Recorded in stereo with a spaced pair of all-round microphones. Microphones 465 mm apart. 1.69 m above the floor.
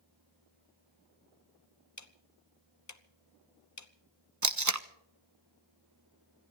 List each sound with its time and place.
2.0 s ticking: 40° left (ahead or behind), 0.9 m
4.4 s tape being pulled: 40° right (ahead or behind), 0.9 m